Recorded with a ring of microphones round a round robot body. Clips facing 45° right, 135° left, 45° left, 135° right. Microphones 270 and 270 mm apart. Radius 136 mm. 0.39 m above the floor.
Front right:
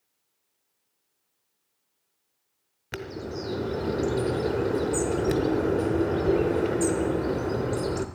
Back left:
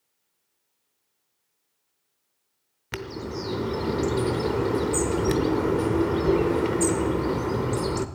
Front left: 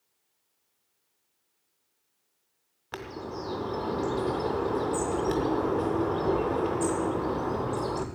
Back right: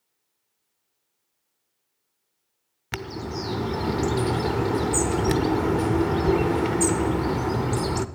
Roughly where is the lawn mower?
I don't hear a lawn mower.